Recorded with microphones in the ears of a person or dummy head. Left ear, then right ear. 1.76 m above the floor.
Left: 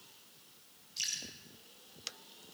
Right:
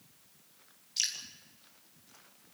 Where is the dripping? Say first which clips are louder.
Right 4 dB; 30° right (ahead or behind), 4.5 m.